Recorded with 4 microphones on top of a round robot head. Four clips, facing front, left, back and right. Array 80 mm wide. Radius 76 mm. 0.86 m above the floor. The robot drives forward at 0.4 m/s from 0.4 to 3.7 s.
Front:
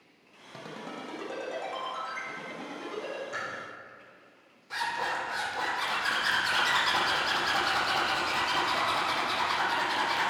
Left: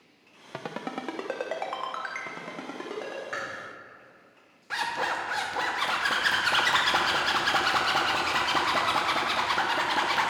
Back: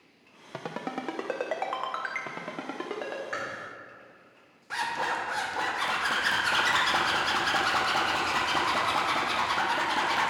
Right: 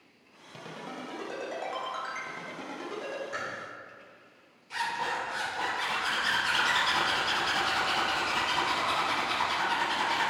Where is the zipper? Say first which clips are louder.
Left 2 dB, back 2 dB; 110° left, 1.2 m.